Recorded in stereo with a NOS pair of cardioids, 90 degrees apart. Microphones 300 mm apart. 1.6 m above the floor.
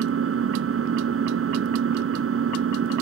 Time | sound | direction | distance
0.0 | an engine running | 50° right | ?